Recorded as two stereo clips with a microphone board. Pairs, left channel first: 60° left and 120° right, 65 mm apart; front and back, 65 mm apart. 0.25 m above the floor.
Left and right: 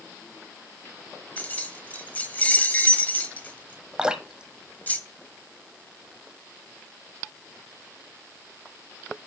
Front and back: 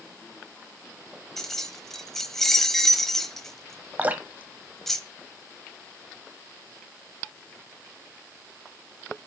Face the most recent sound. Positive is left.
turn(degrees=180)